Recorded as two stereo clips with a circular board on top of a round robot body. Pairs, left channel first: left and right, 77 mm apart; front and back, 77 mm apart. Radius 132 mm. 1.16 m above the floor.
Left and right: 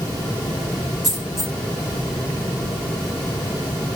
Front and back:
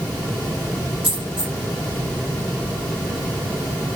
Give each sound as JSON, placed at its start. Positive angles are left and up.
{"t": 1.0, "sound": "a dropped coin", "azimuth_deg": 180, "distance_m": 0.5}